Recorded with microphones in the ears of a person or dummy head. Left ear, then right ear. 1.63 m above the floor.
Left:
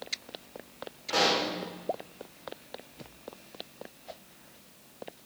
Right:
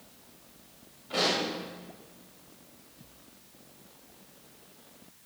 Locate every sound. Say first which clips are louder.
1.1 s a pop: left 2 dB; 60° left (ahead or behind), 5.5 m